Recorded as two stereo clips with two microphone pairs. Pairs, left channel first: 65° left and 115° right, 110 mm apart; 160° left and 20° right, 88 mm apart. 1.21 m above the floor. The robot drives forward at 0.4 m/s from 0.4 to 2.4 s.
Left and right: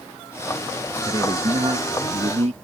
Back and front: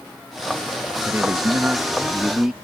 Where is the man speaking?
80° right; by 2.5 s 105° right.